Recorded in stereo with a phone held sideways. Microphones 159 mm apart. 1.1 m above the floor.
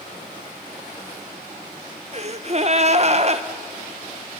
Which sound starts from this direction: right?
A gasp, at 2.1 s.